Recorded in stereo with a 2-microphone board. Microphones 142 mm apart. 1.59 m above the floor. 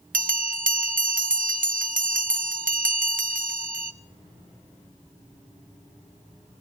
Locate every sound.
0.1 s a bell: 75° right (ahead or behind), 0.5 m